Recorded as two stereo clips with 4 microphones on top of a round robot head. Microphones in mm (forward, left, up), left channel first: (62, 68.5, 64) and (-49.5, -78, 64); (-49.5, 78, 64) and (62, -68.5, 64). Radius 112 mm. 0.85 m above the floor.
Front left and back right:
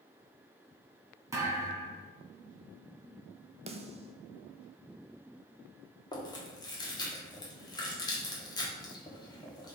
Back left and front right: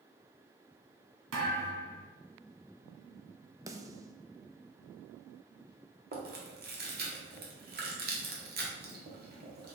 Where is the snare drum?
110° right, 0.8 m.